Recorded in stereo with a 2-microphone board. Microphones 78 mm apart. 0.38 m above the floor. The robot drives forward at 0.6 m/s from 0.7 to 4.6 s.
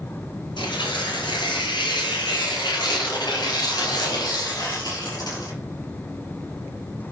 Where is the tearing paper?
80° left, 5 m; by 5.5 s 55° left (ahead or behind), 5.5 m.